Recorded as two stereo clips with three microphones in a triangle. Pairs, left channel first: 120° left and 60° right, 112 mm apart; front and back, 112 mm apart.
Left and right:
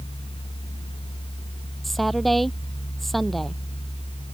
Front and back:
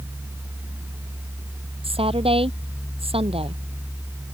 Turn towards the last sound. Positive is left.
turn(degrees=-150)